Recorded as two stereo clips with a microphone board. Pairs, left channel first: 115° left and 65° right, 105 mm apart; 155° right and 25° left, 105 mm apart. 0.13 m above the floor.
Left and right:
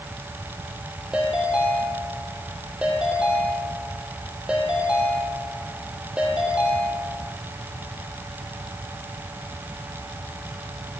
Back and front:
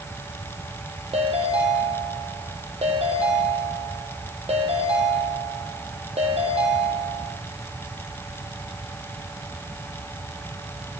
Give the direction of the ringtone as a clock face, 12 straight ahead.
12 o'clock.